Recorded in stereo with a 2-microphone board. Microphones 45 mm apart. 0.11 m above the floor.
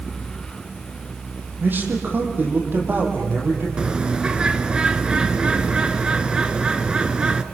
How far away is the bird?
About 1.2 m.